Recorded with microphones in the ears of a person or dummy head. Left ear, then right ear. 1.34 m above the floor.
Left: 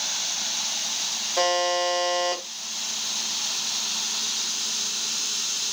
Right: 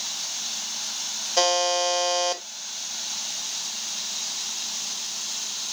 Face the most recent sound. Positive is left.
turn(degrees=-30)  # may be behind; listen again after turning